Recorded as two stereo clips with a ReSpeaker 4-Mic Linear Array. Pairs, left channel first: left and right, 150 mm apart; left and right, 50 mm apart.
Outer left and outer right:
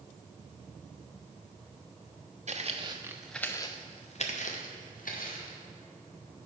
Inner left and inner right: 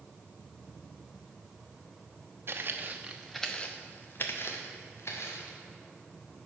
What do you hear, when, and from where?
2.5 s footsteps: 50° right (ahead or behind), 1.1 m; by 5.6 s 70° left (ahead or behind), 2.5 m